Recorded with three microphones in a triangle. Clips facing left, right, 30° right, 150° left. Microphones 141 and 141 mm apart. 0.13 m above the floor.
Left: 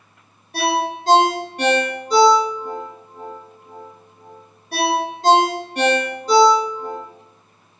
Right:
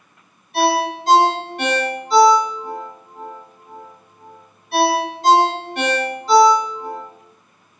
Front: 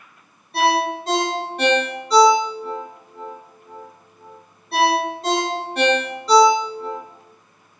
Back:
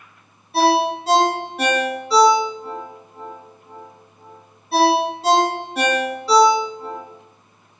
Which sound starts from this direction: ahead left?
A ringtone, at 0.5 s.